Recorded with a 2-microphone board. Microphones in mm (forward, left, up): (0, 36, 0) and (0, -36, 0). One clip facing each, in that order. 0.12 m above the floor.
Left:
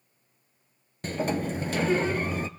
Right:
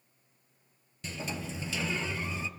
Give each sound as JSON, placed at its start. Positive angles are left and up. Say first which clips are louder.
{"t": 1.0, "sound": "a sliding door", "louder": "left 10 dB", "side_deg": 55, "distance_m": 0.9}